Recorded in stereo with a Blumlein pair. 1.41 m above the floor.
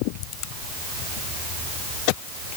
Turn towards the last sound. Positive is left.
No sound to turn to.